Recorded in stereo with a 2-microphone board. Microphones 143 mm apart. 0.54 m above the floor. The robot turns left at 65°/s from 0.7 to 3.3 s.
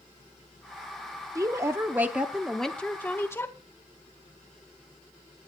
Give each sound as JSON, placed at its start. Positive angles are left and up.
{"t": 1.4, "sound": "a woman speaking", "side_deg": -25, "distance_m": 0.7}